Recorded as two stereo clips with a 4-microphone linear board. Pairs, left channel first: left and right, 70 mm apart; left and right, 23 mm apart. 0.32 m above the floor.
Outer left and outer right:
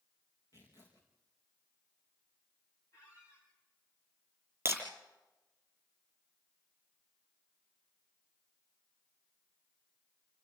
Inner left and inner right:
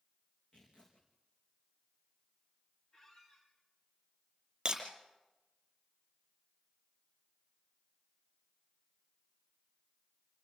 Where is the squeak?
45° left (ahead or behind), 7 m.